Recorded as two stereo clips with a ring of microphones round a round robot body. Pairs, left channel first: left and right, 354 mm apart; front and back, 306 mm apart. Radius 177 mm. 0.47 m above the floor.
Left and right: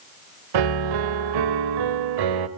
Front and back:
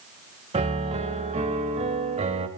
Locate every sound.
0.5 s a piano: 110° right, 1.3 m